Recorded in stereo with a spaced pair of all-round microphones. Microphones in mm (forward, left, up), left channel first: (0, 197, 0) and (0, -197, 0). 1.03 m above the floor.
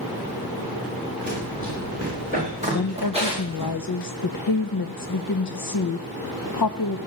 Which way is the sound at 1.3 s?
25° right (ahead or behind).